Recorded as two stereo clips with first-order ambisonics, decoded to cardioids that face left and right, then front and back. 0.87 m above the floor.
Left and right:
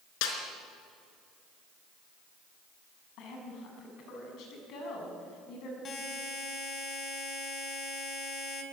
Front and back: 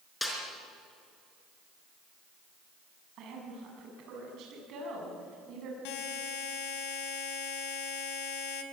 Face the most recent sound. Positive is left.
turn(degrees=25)